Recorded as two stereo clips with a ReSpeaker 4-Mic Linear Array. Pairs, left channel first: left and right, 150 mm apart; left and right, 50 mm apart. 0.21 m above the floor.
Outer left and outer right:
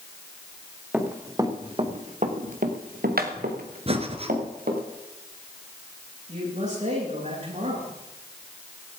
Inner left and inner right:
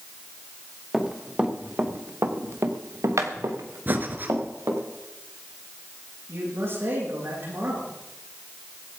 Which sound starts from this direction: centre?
Running footsteps, at 0.9 s.